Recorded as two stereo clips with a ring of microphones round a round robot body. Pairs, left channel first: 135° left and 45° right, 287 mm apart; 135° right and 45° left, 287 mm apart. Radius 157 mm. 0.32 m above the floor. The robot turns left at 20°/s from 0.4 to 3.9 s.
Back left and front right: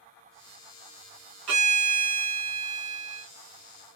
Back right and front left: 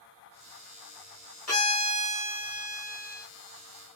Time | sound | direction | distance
1.5 | a violin | 50° right | 1.4 m